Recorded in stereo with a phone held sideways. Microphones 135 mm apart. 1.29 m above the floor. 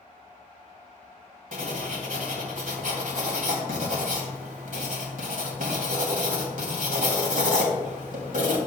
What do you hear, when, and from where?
1.5 s writing: 80° right, 2.5 m